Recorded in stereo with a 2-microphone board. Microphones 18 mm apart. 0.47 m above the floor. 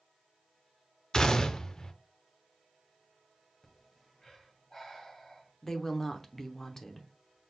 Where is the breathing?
30° left (ahead or behind), 1.5 m.